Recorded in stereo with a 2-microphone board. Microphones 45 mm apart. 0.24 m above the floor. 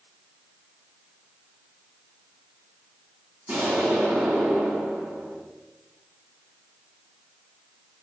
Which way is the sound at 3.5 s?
50° right (ahead or behind).